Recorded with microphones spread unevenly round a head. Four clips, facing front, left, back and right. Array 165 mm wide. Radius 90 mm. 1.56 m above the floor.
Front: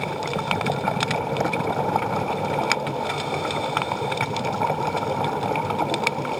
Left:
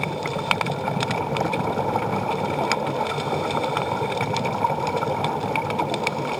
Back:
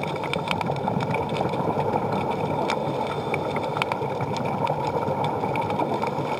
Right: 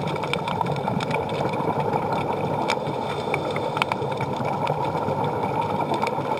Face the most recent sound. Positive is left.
No sound to turn to.